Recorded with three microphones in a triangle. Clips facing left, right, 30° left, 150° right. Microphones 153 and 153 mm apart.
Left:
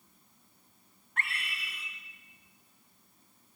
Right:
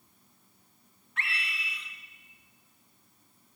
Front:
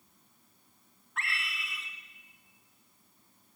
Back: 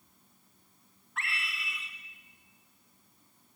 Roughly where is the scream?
Behind left.